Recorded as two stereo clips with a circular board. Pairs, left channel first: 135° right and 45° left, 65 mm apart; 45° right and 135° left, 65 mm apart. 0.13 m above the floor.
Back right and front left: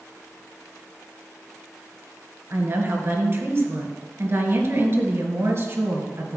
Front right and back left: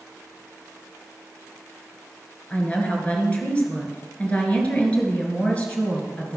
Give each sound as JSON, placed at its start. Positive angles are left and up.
{"t": 2.5, "sound": "a woman speaking", "azimuth_deg": 15, "distance_m": 2.0}